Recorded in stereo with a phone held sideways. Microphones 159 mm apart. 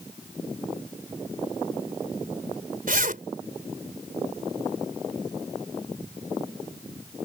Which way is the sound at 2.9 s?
65° right (ahead or behind).